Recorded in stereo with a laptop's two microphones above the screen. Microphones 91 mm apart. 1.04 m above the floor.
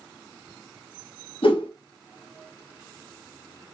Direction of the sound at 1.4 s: 80° left.